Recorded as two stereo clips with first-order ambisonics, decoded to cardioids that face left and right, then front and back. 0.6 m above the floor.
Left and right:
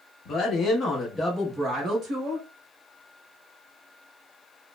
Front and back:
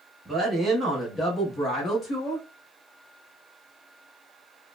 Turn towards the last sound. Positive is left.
turn(degrees=-55)